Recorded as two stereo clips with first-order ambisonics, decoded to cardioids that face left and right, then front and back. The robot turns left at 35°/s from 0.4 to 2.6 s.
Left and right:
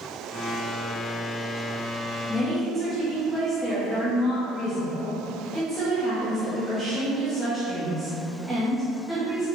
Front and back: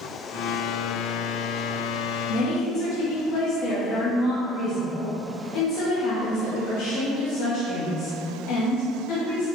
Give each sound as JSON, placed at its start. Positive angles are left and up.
{"t": 2.3, "sound": "a woman speaking", "azimuth_deg": 10, "distance_m": 0.7}